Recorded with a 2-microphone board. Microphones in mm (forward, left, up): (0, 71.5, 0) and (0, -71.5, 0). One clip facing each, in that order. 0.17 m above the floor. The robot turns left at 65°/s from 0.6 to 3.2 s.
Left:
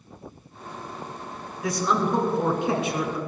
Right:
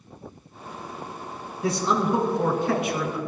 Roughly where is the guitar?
No guitar in this recording.